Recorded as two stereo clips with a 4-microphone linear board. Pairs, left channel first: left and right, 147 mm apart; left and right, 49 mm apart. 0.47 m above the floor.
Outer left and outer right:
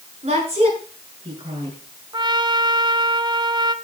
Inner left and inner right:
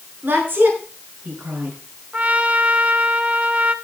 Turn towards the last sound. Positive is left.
turn(degrees=-30)  # may be behind; listen again after turning